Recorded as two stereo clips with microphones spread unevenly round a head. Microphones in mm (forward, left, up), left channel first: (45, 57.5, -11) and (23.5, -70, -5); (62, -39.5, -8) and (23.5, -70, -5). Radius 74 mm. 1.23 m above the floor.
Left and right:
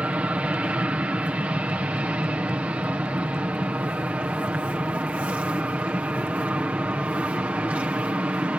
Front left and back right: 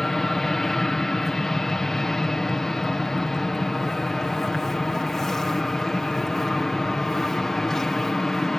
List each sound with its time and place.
0.0 s an aircraft: 30° right